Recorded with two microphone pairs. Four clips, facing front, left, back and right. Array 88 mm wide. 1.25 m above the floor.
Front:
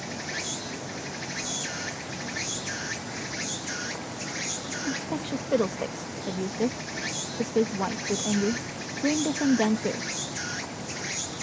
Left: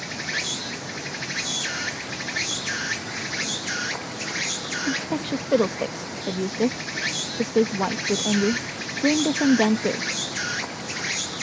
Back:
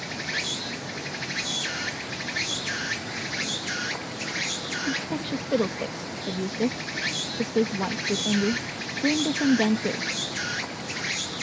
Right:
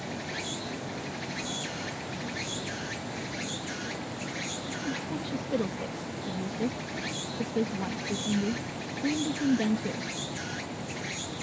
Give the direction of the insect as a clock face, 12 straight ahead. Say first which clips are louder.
Left 5 dB, back 3 dB; 9 o'clock.